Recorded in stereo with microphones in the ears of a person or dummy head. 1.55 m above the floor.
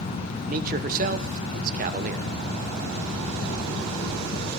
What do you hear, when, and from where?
0.5 s a man speaking: 40° right (ahead or behind), 1.1 m